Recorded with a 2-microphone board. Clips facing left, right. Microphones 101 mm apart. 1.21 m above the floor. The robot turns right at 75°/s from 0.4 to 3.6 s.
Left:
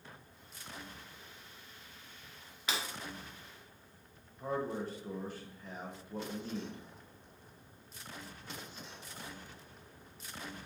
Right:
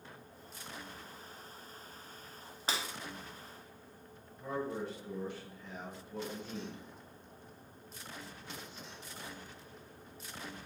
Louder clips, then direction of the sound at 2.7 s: Right 1 dB; 35° right (ahead or behind).